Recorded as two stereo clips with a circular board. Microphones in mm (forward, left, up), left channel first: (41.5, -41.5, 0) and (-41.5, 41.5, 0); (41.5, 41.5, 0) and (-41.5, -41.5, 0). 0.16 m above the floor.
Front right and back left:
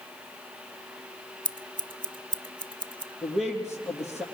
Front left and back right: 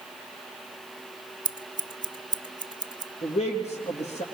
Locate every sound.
1.4 s scissors: 175° left, 0.5 m
3.2 s a man speaking: 50° left, 3.5 m